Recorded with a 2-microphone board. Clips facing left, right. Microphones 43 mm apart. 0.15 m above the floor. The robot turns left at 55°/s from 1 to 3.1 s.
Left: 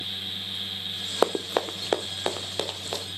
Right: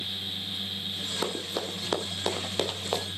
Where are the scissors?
No scissors in this recording.